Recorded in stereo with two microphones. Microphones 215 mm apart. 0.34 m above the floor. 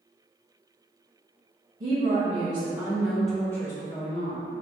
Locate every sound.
1.8 s a woman speaking: 45° right (ahead or behind), 1.8 m; by 4.5 s 45° left (ahead or behind), 1.6 m